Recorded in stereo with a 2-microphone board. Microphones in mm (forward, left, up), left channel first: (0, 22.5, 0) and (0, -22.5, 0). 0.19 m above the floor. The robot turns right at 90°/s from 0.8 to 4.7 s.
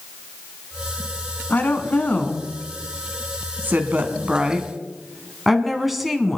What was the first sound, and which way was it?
A woman speaking, 40° left (ahead or behind).